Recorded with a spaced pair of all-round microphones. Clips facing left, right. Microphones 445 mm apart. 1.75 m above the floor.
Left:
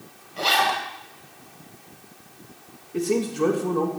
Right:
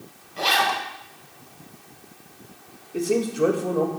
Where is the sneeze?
No sneeze in this recording.